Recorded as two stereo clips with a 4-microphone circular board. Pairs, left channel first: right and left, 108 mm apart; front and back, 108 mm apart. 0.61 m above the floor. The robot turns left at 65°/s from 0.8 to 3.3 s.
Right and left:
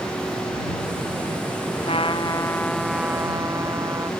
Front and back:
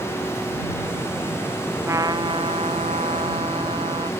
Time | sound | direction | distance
1.9 | a trumpet | 115° right | ?